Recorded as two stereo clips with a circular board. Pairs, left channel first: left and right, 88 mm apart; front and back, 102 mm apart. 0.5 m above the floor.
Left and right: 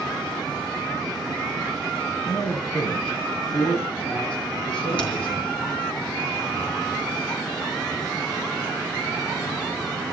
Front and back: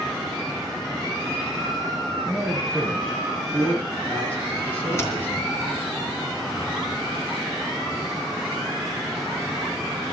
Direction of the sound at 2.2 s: 85° left.